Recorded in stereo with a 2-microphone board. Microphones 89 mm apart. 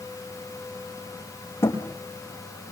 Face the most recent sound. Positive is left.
turn(degrees=25)  # may be behind; listen again after turning